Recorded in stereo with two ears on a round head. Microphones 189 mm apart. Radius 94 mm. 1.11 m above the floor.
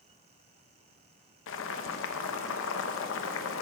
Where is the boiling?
65° left (ahead or behind), 0.8 m.